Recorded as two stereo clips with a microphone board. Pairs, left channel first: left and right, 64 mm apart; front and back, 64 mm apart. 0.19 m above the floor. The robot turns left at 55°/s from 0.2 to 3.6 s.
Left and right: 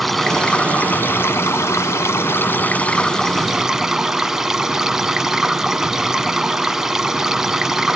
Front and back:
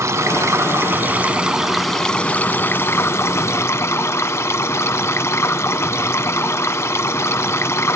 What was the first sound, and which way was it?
Running water, straight behind.